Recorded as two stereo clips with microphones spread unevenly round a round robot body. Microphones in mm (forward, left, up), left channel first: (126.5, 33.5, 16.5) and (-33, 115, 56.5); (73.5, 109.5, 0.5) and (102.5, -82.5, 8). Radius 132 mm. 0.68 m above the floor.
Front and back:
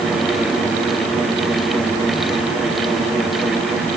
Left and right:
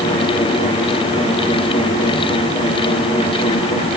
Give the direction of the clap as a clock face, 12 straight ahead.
I don't hear a clap.